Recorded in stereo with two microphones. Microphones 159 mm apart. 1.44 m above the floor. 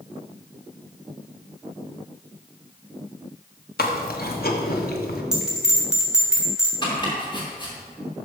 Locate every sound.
3.8 s chewing: 75° left (ahead or behind), 1.1 m
5.3 s a bell: 5° right (ahead or behind), 2.5 m
6.8 s chopping: 30° left (ahead or behind), 3.5 m